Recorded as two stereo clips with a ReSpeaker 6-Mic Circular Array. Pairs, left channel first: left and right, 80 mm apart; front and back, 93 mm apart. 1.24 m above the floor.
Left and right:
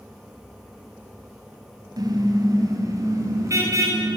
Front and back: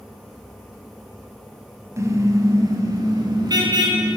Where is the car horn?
125° right, 4 m; by 4.2 s 140° right, 7 m.